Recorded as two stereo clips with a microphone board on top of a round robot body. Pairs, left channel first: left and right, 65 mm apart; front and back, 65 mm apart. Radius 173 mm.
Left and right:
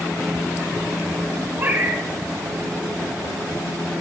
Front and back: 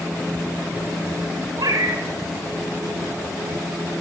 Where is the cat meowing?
150° right, 3 m.